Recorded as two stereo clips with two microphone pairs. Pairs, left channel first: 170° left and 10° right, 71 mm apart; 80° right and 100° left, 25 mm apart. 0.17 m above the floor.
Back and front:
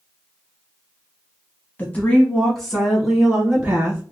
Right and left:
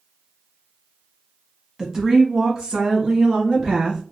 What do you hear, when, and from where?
1.8 s a woman speaking: 140° left, 1.1 m; by 4.0 s 60° left, 2 m